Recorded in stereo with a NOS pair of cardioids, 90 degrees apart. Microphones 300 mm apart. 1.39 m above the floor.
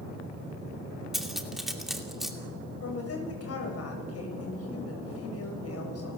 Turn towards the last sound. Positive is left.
turn(degrees=50)